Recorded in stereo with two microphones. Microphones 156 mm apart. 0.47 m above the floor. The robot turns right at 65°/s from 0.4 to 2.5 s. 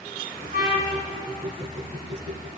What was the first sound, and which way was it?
A trumpet, 105° right.